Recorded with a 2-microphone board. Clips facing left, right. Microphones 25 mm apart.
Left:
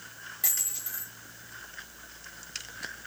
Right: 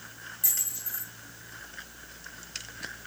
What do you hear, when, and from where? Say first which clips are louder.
0.4 s a dropped coin: even; 35° left (ahead or behind), 6 m